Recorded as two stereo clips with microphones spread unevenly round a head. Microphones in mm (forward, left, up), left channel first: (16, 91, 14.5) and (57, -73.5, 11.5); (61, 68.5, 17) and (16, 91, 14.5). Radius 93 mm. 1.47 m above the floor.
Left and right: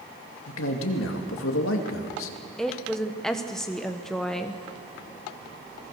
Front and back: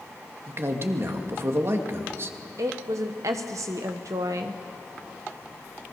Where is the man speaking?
120° left, 2.5 m.